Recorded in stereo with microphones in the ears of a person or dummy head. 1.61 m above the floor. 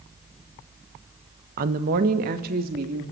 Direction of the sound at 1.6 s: 50° right (ahead or behind).